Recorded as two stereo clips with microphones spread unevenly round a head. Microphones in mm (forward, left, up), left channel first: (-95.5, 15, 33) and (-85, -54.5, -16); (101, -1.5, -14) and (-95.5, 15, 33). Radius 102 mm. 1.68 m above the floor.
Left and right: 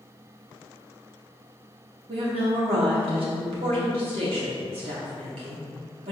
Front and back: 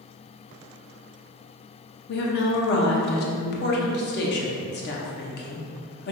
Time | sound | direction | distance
2.1 | a woman speaking | 45° right | 0.8 m